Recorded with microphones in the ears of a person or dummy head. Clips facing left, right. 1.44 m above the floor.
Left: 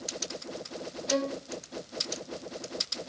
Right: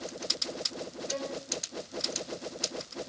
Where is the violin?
65° left (ahead or behind), 1.7 m.